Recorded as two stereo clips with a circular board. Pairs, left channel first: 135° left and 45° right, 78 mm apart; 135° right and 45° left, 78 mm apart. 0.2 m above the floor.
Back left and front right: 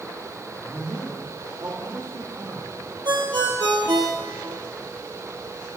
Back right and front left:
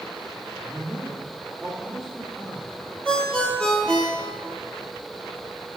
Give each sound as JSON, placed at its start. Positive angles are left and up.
{"t": 0.6, "sound": "a man speaking", "azimuth_deg": -30, "distance_m": 4.0}
{"t": 3.0, "sound": "a ringtone", "azimuth_deg": -60, "distance_m": 2.5}